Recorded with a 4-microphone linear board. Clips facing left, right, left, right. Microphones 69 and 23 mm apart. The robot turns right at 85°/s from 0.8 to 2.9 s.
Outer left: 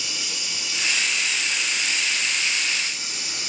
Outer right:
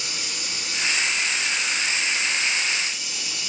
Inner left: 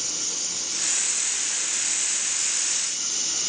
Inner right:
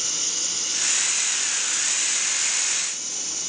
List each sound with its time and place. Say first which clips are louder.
0.0 s running water: even, inner right 3 dB; 125° right, 1.7 m; by 3.5 s 55° left, 1.7 m